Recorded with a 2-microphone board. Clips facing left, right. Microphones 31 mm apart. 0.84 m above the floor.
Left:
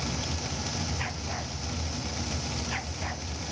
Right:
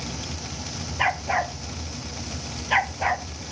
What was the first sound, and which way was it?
A dog barking, 70° right (ahead or behind).